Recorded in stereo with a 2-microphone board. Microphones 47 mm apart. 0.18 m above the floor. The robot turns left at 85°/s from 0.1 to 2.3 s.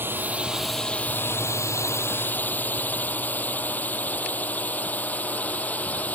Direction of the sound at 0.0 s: 50° right (ahead or behind).